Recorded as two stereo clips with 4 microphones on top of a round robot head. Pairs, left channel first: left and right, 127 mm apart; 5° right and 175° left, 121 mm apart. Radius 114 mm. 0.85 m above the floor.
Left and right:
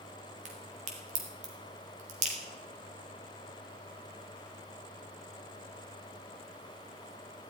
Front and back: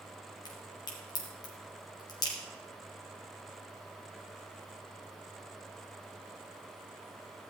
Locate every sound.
0.5 s a crack: 60° right, 2.5 m